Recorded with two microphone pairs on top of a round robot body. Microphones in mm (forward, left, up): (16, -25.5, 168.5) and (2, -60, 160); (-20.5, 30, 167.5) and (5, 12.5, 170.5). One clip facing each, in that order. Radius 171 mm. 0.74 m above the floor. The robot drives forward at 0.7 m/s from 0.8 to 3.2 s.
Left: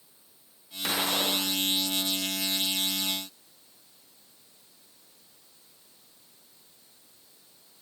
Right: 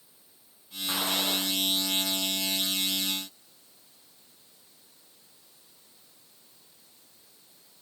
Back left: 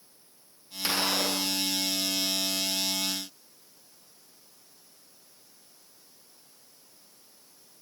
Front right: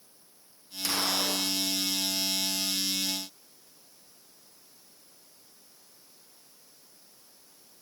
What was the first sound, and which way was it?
A gunshot, 75° left.